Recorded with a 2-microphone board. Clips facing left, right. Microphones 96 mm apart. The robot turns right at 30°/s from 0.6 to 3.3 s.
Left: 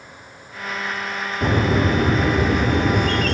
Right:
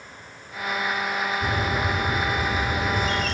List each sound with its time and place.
1.4 s a bird: 65° left, 1.9 m; by 3.3 s 125° left, 1.9 m